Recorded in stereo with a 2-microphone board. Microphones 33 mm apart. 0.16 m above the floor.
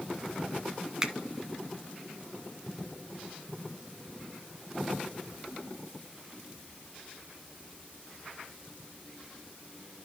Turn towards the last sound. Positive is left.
turn(degrees=-20)  # may be behind; listen again after turning